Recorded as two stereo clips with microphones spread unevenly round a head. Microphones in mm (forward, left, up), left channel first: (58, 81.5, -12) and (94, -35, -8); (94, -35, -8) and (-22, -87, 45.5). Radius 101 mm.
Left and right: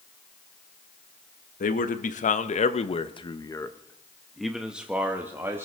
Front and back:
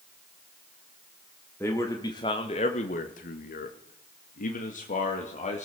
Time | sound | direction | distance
1.6 | a man speaking | 105° left | 1.2 m